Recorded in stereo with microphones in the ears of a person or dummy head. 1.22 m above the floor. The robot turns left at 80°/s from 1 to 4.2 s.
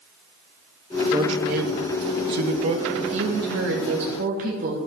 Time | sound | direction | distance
1.1 | a man speaking | 20° right | 1.1 m
3.0 | a woman speaking | 30° right | 1.4 m